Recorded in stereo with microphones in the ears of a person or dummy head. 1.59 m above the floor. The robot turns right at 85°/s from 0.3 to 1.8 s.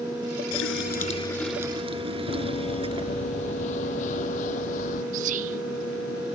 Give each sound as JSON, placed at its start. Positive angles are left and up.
{"t": 0.5, "sound": "a running tap", "azimuth_deg": 95}
{"t": 2.3, "sound": "running footsteps", "side_deg": 35}
{"t": 5.1, "sound": "whispering", "side_deg": -40}